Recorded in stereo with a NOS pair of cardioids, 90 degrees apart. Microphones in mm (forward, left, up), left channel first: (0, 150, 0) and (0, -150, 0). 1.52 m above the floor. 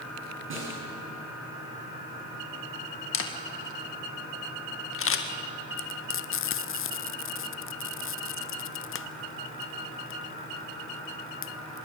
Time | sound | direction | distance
0.5 | a snare drum | 45° right | 7 m
3.1 | a camera shutter | 45° left | 2 m
5.8 | frying | 50° left | 0.9 m